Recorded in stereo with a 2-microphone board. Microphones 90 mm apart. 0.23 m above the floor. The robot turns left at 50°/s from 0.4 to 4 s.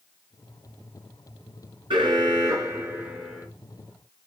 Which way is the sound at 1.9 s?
105° right.